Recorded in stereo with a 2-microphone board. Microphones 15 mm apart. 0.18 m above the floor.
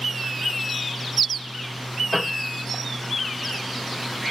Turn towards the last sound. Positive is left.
turn(degrees=-5)  # may be behind; listen again after turning